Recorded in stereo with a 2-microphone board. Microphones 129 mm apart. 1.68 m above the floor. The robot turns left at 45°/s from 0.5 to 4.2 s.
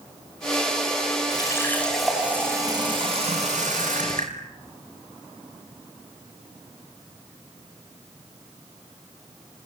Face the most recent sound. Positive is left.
turn(degrees=-95)